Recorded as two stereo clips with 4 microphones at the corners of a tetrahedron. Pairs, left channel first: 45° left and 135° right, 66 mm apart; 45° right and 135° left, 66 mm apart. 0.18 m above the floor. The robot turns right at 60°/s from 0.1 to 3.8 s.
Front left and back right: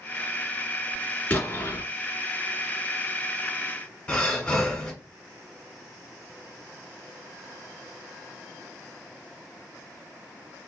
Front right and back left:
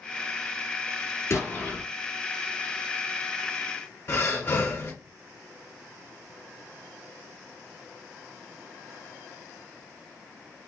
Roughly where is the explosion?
Ahead.